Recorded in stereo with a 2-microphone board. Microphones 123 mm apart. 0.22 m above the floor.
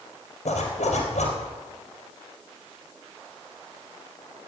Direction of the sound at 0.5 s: 80° left.